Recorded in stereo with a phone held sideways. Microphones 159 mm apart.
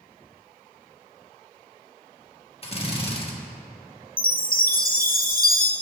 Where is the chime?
65° left (ahead or behind), 0.8 m.